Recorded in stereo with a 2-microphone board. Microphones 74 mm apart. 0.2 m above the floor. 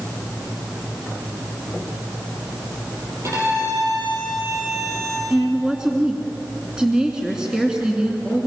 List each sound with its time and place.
3.2 s a violin: 45° right (ahead or behind), 7.5 m
5.3 s a woman speaking: 10° right (ahead or behind), 2.5 m